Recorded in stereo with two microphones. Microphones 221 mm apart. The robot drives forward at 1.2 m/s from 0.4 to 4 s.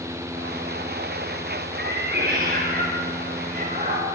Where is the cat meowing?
50° right (ahead or behind), 5 m; by 4.0 s 35° right (ahead or behind), 7 m.